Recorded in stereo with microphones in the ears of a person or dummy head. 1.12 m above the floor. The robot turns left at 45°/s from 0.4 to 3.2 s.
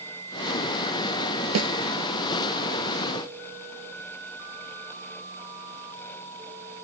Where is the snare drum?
85° right; by 1.7 s 80° right.